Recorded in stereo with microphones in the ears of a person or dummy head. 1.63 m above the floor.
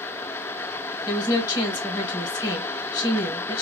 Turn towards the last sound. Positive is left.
turn(degrees=20)  # may be behind; listen again after turning